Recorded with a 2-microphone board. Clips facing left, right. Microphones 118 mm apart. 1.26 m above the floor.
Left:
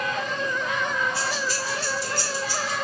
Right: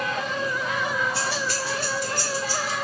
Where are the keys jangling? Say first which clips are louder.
Even; 75° right (ahead or behind), 1.7 m; by 2.7 s 30° right (ahead or behind), 1.9 m.